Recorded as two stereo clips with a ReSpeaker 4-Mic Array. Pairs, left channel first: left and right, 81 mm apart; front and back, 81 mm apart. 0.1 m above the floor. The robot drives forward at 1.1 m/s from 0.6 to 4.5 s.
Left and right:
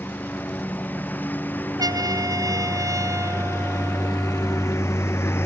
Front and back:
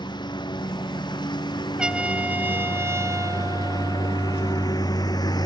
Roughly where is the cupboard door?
I don't hear a cupboard door.